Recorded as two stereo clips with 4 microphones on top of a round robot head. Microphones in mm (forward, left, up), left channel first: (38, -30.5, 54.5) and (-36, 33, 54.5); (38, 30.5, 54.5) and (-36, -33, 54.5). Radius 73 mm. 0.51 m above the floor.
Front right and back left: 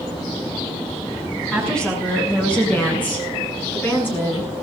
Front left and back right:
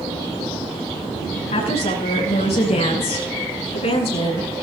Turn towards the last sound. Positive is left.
turn(degrees=25)